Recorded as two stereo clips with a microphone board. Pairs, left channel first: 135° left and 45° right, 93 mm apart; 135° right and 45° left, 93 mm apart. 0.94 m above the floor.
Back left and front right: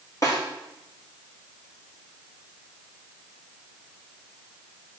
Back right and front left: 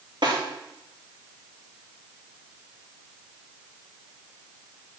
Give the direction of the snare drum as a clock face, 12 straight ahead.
9 o'clock.